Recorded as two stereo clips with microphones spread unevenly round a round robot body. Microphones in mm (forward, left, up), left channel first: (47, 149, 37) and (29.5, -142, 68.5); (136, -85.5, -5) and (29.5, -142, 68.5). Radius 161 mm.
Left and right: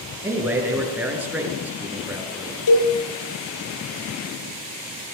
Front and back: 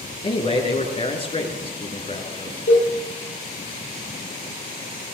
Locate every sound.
0.2 s a man speaking: 10° right, 6.5 m
2.7 s a cowbell: 70° left, 6.5 m